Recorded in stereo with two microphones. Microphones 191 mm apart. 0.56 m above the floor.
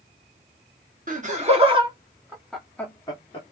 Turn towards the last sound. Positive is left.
turn(degrees=30)  # may be behind; listen again after turning